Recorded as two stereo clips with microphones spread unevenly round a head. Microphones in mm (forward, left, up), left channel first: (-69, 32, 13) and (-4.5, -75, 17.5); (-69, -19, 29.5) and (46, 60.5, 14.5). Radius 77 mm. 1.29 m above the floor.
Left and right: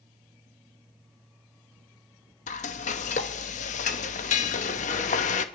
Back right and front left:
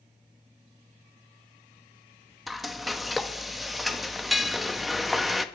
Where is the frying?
130° left, 0.8 m.